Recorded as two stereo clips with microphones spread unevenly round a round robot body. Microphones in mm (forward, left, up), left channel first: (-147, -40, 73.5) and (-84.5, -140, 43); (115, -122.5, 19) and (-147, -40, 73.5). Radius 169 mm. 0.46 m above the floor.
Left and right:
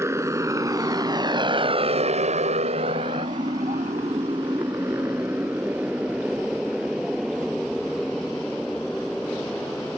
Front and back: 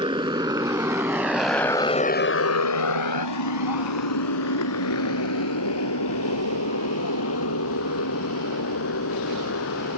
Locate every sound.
0.0 s a motorcycle: 125° right; by 10.0 s 35° left